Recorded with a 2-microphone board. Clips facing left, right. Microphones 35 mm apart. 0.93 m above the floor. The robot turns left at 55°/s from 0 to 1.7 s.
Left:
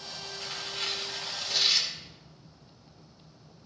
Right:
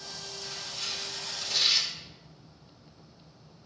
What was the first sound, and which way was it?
Tearing paper, 70° left.